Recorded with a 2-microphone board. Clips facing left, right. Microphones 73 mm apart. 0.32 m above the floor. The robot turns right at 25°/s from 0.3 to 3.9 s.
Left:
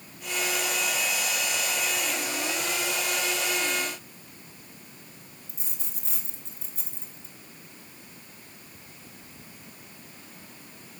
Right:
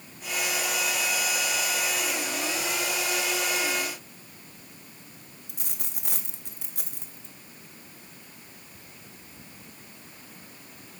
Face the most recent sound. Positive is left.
turn(degrees=-65)  # may be behind; listen again after turning